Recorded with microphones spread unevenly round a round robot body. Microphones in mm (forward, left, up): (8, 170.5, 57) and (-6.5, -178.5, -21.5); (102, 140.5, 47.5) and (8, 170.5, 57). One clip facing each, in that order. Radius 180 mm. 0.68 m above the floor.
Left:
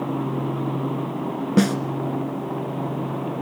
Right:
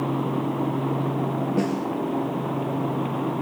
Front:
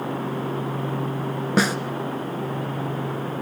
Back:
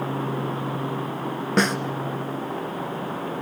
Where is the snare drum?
70° left, 1.7 m.